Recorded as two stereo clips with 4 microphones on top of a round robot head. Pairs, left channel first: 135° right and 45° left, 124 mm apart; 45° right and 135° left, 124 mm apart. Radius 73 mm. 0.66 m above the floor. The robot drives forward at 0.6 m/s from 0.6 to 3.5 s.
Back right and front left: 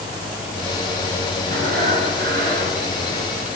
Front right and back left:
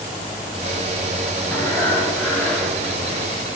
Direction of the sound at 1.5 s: 30° left.